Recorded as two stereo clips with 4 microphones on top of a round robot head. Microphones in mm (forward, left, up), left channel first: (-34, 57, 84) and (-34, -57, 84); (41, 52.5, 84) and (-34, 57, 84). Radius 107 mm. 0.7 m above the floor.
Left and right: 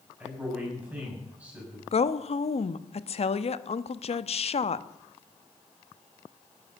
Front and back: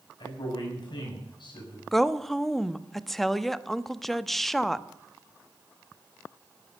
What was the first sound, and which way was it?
A man speaking, 10° right.